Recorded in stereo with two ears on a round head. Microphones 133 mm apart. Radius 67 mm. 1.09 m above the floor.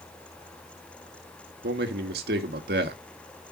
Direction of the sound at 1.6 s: 75° right (ahead or behind).